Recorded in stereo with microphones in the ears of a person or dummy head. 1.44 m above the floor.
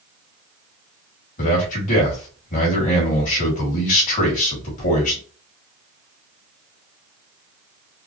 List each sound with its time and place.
1.4 s a man speaking: 45° left (ahead or behind), 1.8 m